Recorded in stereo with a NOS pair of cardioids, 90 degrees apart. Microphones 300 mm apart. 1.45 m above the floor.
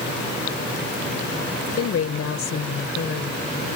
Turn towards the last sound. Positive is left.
turn(degrees=40)